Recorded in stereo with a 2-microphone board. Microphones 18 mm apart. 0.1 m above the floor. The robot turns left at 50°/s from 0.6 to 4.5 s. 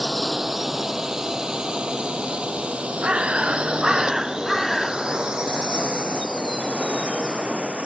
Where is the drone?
20° right (ahead or behind); by 7.8 s 60° right (ahead or behind).